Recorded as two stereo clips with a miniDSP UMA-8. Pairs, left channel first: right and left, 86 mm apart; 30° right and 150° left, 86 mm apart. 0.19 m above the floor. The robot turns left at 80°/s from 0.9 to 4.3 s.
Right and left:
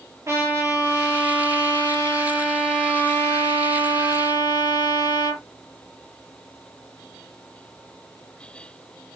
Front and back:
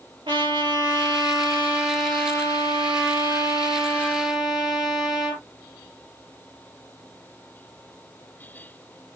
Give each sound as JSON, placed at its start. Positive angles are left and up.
{"t": 0.3, "sound": "a trumpet", "azimuth_deg": 145, "distance_m": 4.0}